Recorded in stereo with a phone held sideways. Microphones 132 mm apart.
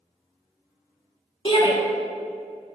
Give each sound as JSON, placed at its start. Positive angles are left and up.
{"t": 1.4, "sound": "a shout", "side_deg": 40, "distance_m": 1.8}